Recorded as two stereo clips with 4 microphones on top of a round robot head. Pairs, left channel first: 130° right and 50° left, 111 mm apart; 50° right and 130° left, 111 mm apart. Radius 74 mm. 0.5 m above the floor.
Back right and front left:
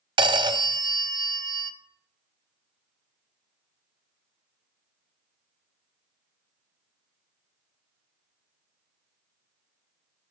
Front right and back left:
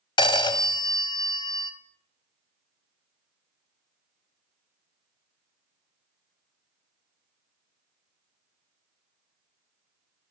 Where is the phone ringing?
Straight ahead, 0.6 m.